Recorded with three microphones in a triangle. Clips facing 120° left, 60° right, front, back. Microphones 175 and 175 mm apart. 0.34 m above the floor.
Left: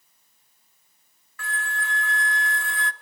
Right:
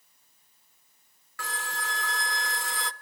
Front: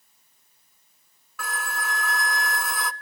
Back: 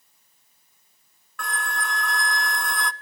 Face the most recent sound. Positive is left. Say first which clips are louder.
# left 3 dB, back 1 dB
turn(degrees=-85)